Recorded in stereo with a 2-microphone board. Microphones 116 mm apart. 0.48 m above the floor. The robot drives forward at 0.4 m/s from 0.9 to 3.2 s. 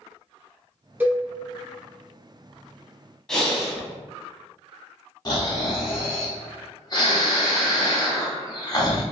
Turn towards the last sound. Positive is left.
turn(degrees=35)  # may be behind; listen again after turning